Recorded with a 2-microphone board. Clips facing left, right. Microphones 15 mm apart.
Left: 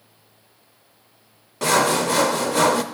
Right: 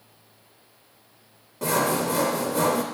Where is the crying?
I don't hear crying.